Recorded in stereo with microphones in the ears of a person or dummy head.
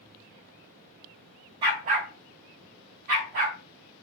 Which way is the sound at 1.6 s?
25° right (ahead or behind).